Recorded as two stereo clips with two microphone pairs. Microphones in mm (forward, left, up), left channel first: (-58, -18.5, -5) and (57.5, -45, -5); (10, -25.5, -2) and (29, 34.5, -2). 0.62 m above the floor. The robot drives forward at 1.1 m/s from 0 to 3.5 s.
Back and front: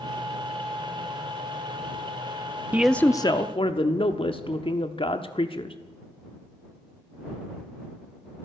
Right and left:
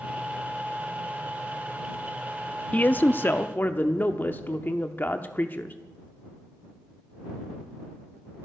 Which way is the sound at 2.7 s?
65° right.